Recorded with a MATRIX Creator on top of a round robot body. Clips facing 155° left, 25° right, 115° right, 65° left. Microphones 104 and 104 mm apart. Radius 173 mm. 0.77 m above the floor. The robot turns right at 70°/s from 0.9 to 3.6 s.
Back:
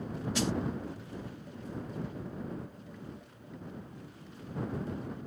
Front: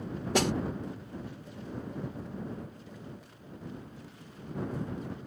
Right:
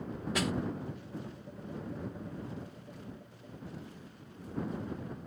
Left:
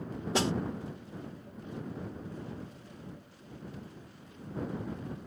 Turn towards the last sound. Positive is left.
turn(degrees=-165)